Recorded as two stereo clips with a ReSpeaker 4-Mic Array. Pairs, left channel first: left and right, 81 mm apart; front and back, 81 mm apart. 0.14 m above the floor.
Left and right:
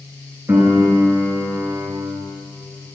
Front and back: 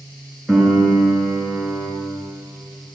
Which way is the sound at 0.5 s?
85° right.